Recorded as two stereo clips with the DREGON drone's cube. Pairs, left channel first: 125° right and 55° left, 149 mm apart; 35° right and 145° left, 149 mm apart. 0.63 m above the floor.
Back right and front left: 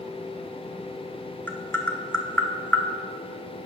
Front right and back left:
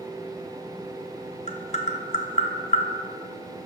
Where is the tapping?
50° right, 0.6 m.